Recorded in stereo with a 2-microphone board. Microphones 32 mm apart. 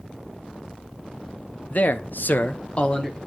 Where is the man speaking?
45° left (ahead or behind), 0.9 m; by 3.2 s 30° left (ahead or behind), 1.5 m.